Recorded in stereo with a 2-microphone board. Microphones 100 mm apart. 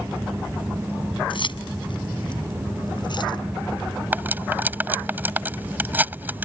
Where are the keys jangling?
60° left (ahead or behind); by 3.4 s 50° left (ahead or behind).